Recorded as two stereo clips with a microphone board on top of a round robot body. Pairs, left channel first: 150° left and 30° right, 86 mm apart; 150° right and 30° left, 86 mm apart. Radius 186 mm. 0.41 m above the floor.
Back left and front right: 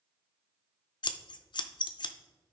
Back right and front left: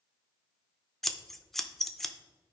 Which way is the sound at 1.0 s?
120° left.